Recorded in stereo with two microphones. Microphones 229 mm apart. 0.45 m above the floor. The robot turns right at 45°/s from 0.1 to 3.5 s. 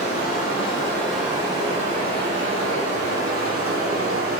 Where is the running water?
135° left, 1.0 m; by 4.4 s 75° right, 1.0 m.